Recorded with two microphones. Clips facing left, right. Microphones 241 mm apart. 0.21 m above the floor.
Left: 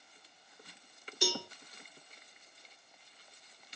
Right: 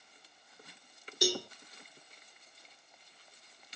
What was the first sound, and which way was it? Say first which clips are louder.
A cowbell: right 3 dB; 45° right (ahead or behind).